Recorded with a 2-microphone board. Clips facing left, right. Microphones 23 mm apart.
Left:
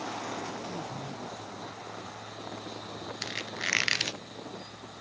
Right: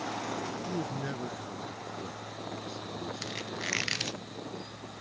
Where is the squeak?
20° left (ahead or behind).